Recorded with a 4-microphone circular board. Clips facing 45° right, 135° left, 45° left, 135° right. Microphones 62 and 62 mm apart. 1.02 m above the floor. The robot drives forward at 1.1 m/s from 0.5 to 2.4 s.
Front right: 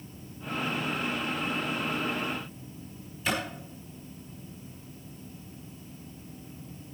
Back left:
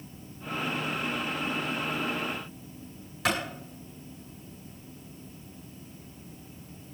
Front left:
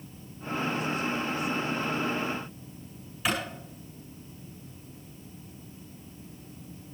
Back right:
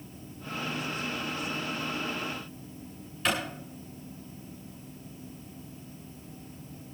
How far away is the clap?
About 9.5 m.